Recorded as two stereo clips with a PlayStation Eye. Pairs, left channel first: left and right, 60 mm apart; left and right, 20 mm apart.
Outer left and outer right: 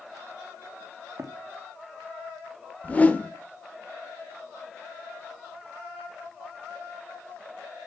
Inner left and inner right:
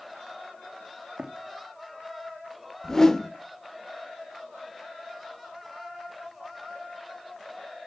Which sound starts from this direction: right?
Running footsteps, at 1.2 s.